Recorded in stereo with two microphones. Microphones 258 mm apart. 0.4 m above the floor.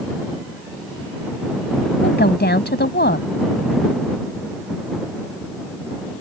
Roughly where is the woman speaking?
Left.